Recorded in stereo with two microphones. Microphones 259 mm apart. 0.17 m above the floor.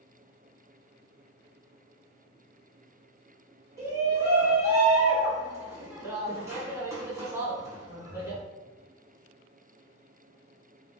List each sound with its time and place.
3.8 s a shout: 10° right (ahead or behind), 1.5 m